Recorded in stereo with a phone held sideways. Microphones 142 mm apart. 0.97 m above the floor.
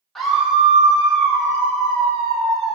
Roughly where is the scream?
Centre.